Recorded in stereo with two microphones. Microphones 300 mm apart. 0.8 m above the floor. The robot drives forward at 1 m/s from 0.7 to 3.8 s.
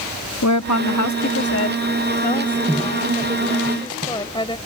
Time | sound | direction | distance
0.4 | a woman speaking | 65° left (ahead or behind) | ?